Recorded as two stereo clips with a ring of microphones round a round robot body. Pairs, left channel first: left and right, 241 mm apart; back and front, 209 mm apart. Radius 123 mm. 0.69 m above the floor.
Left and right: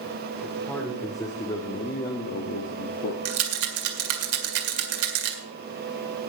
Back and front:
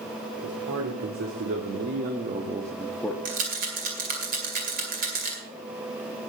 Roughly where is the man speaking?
Ahead.